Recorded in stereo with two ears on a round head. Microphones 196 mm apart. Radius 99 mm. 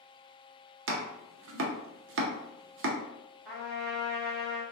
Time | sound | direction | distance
0.9 | chopping | 65° right (ahead or behind) | 0.5 m
3.5 | a trumpet | centre (ahead or behind) | 1.0 m